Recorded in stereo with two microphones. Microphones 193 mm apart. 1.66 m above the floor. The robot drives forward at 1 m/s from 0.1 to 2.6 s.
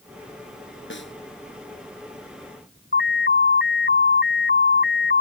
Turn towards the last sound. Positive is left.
turn(degrees=60)  # may be behind; listen again after turning